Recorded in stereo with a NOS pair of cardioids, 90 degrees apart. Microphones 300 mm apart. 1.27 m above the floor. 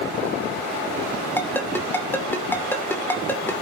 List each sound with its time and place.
1.4 s a ringtone: 5° left, 2.5 m